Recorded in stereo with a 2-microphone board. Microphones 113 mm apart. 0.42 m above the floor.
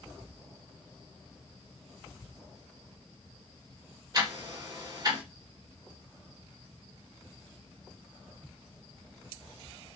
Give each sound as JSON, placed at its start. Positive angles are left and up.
{"t": 4.1, "sound": "ticking", "side_deg": -35, "distance_m": 1.2}